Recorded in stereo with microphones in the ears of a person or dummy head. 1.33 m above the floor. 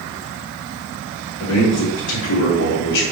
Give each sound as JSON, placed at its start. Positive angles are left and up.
{"t": 1.4, "sound": "a man speaking", "side_deg": 85, "distance_m": 1.4}